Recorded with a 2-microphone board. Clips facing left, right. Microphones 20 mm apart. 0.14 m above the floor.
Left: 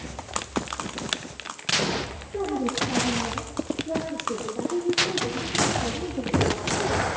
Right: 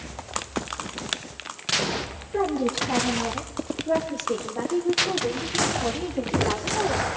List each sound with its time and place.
2.3 s a woman speaking: 70° right (ahead or behind), 3.5 m; by 7.1 s 65° right (ahead or behind), 5.5 m